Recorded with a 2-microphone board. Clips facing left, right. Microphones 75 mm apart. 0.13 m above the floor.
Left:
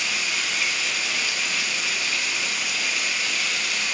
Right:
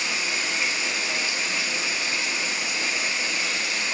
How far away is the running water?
About 1.2 m.